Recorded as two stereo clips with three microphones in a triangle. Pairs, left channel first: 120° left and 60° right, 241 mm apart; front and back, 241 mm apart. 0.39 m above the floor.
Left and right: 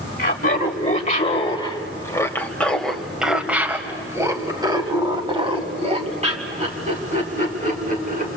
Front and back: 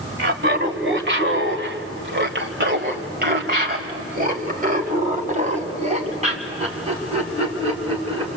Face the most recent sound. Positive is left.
turn(degrees=-115)